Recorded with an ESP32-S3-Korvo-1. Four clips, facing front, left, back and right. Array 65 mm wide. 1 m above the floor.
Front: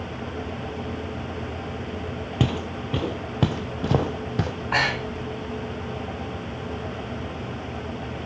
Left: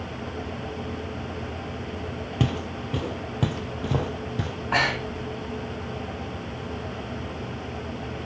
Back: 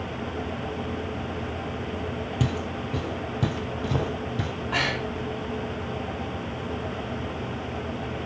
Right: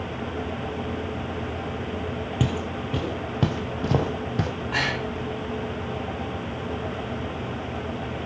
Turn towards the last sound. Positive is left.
turn(degrees=35)